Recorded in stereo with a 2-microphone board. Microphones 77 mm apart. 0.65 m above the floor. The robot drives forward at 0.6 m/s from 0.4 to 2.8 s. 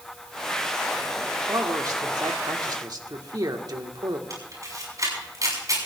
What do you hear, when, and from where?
1.5 s a man speaking: 55° right (ahead or behind), 1.8 m; by 4.2 s 60° right (ahead or behind), 1.7 m
4.3 s a camera shutter: 45° right (ahead or behind), 6 m